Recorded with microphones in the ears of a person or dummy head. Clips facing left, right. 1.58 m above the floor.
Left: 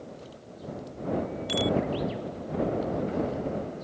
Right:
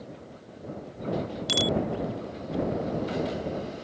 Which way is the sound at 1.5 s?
60° right (ahead or behind).